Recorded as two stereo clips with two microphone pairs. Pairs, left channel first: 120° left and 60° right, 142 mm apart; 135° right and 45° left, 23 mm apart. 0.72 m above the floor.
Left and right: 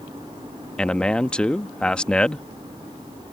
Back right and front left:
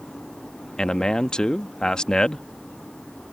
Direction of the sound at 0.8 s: 160° right.